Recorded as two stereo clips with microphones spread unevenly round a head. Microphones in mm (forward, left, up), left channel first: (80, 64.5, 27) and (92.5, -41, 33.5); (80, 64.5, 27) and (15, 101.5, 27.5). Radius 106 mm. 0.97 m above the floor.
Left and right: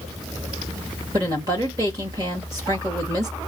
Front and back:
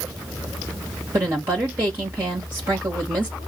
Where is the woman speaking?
145° right, 1.1 m.